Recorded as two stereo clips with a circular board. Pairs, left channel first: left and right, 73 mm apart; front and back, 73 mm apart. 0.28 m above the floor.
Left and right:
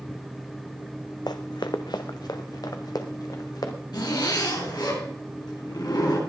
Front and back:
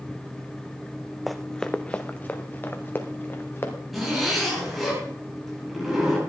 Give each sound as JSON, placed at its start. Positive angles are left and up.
{"t": 1.3, "sound": "running footsteps", "azimuth_deg": 90, "distance_m": 0.8}
{"t": 3.9, "sound": "a zipper", "azimuth_deg": 95, "distance_m": 9.5}